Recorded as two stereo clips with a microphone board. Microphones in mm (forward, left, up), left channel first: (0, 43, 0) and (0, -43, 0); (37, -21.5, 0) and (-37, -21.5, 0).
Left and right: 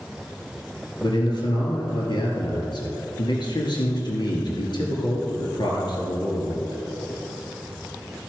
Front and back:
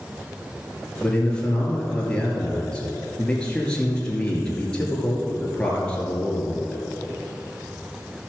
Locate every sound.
1.0 s a man speaking: 75° left, 2.5 m